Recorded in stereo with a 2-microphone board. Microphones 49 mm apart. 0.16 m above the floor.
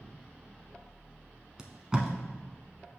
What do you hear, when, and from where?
1.6 s tape being pulled: 15° right (ahead or behind), 0.9 m